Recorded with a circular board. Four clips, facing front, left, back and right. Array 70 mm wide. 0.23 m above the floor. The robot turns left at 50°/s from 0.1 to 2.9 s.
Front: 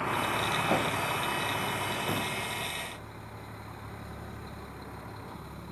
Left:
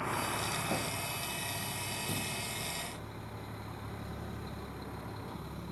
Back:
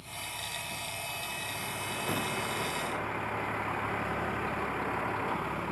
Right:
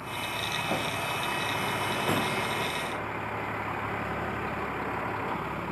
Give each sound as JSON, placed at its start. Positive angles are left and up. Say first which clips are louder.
{"t": 0.0, "sound": "a vehicle", "louder": "right 1 dB, front 13 dB", "azimuth_deg": 10}